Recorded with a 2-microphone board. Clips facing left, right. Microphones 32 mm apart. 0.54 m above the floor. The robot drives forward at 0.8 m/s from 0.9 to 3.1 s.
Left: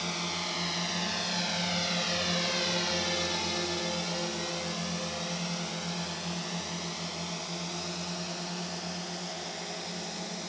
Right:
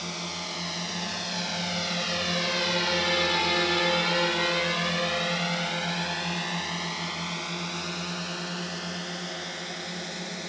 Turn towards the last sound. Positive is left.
turn(degrees=-30)  # may be behind; listen again after turning